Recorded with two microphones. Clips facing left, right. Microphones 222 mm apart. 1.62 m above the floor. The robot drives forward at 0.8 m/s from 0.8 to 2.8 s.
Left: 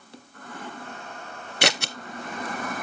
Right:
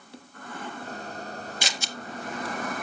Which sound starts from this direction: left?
Scissors, at 1.6 s.